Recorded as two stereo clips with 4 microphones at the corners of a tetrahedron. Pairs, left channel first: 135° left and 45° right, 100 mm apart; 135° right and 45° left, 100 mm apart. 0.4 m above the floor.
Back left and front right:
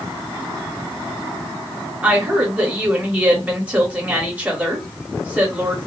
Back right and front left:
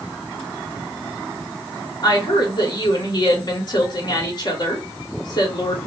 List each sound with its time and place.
2.0 s a woman speaking: 115° right, 1.7 m